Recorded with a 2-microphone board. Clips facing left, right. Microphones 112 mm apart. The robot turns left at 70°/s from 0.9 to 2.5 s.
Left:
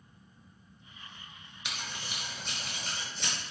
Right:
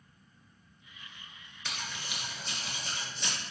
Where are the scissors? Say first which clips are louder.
Even; 15° left (ahead or behind), 1.2 m; by 3.3 s 65° left (ahead or behind), 1.2 m.